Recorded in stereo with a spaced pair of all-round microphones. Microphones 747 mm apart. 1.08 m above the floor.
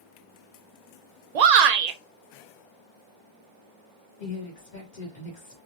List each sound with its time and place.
1.4 s a shout: 65° right (ahead or behind), 0.6 m
4.2 s a woman speaking: 70° left (ahead or behind), 1.6 m